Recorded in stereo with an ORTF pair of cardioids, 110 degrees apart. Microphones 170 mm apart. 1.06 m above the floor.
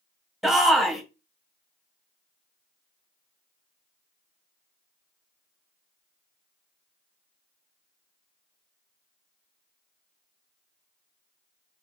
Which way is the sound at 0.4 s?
Straight ahead.